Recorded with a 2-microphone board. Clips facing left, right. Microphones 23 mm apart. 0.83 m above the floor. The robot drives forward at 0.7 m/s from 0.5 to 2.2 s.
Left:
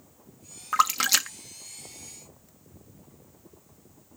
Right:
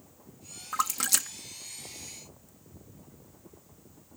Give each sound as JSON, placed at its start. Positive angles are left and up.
{"t": 0.7, "sound": "a splash", "side_deg": 45}